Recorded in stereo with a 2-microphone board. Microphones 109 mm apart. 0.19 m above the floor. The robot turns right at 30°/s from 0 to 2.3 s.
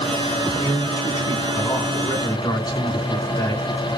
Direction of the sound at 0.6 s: 40° left.